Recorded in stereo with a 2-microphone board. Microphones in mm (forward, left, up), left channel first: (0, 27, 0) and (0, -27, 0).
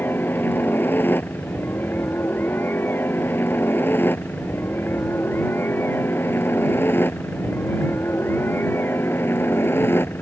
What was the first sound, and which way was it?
A helicopter, 45° left (ahead or behind).